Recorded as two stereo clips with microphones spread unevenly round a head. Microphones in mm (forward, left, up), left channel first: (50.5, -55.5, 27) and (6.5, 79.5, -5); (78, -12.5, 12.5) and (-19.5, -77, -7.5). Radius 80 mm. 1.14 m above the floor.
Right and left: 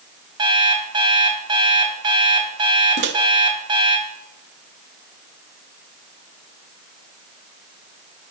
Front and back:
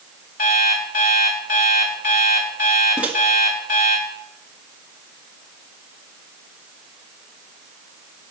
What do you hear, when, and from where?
0.4 s an alarm clock: 45° left, 3 m
3.0 s a microwave: 130° left, 1.1 m